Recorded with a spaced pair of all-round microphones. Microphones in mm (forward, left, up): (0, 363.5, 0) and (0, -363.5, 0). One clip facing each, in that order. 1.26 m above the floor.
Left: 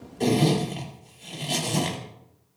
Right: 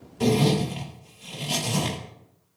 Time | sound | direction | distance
0.2 | a zipper | 40° right (ahead or behind) | 2.5 m